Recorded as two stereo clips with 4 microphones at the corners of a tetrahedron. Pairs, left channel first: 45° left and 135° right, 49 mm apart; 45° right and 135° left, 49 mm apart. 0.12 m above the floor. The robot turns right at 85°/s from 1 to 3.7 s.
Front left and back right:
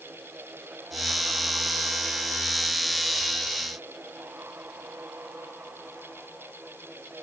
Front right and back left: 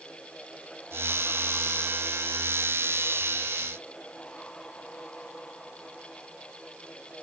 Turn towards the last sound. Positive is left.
No sound to turn to.